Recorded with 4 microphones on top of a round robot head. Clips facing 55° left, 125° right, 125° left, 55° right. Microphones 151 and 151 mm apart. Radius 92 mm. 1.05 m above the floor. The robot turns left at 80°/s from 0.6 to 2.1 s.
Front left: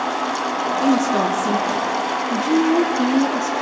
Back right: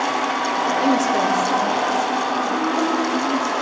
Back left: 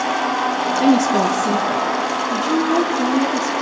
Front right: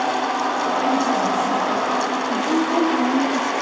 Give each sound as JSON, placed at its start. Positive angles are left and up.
{"t": 0.8, "sound": "a woman speaking", "azimuth_deg": 145, "distance_m": 2.5}